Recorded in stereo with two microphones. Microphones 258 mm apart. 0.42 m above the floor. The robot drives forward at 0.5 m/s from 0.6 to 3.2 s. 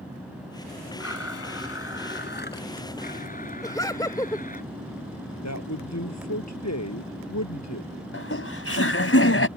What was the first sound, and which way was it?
A blender, 70° left (ahead or behind).